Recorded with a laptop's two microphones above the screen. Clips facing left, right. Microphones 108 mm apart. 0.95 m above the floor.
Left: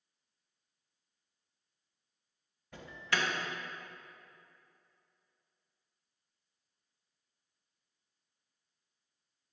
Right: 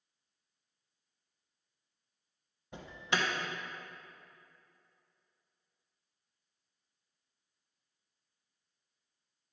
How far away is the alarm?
About 1.0 m.